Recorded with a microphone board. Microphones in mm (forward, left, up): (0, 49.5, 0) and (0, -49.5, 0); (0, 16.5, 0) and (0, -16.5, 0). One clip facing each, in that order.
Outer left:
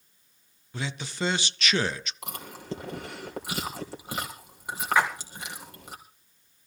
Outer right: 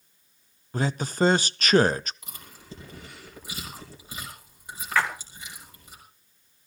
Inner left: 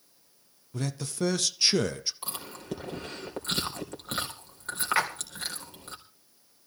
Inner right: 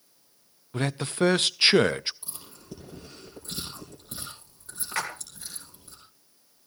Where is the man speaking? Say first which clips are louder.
Outer right 8 dB, inner right 6 dB; 45° right (ahead or behind), 0.6 m.